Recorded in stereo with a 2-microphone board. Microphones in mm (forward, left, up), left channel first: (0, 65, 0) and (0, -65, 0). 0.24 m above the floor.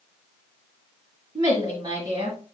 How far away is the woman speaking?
About 1.5 m.